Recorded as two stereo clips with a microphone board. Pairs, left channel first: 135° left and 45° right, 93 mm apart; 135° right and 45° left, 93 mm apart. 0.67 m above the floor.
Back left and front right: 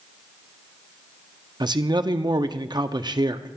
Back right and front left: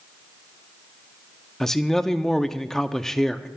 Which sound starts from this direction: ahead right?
A man speaking, at 1.6 s.